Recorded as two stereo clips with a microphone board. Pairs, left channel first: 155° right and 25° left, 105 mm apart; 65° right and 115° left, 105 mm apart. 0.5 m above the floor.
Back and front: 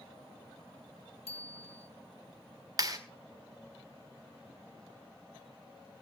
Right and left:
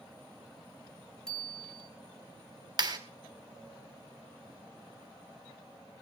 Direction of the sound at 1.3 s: 150° right.